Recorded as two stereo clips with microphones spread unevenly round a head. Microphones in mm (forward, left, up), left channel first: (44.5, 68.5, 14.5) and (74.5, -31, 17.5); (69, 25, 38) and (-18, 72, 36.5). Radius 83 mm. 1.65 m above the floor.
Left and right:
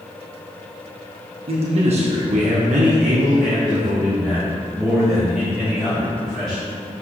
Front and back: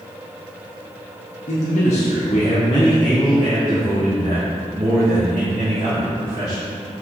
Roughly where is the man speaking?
Ahead right.